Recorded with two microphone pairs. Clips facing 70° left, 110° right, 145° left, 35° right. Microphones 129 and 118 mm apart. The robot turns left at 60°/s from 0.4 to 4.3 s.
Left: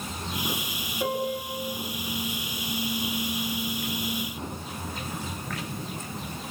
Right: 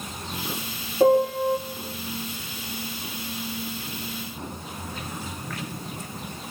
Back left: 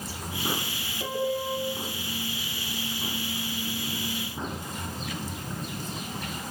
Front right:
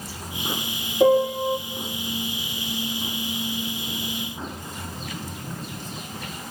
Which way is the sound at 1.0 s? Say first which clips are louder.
Right 11 dB, front right 11 dB; 65° right.